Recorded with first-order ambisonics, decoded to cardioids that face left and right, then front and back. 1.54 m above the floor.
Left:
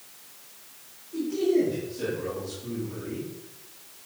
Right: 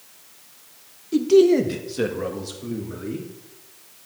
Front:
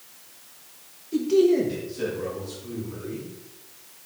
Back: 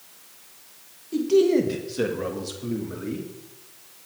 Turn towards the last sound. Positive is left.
turn(degrees=-150)